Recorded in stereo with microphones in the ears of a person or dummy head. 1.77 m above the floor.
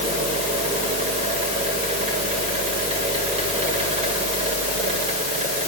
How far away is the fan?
About 2.5 m.